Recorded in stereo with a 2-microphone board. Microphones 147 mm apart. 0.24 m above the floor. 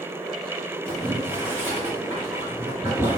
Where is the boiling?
15° right (ahead or behind), 1.8 m.